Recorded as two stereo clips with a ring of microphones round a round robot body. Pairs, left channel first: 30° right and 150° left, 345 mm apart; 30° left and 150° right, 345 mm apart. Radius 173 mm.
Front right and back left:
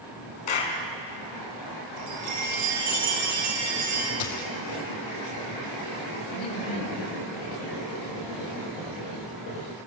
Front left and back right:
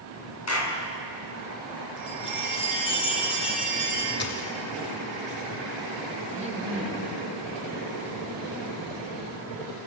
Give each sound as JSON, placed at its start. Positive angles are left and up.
{"t": 0.5, "sound": "a clap", "azimuth_deg": -20, "distance_m": 4.0}
{"t": 2.0, "sound": "a chime", "azimuth_deg": 105, "distance_m": 6.5}
{"t": 4.2, "sound": "a dropped coin", "azimuth_deg": -30, "distance_m": 2.5}
{"t": 6.3, "sound": "laughter", "azimuth_deg": -80, "distance_m": 2.5}